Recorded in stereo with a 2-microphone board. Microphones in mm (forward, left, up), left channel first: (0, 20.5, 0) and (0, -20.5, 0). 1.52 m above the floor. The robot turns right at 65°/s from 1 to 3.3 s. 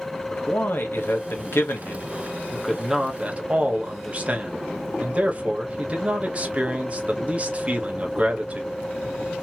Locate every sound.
0.3 s a man speaking: 65° left, 1.1 m; by 8.8 s 145° right, 1.1 m